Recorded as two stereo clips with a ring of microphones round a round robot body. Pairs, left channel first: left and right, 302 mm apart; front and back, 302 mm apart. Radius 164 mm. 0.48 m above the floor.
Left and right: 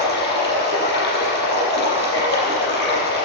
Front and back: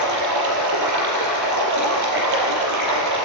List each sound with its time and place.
0.0 s running water: 150° left, 5 m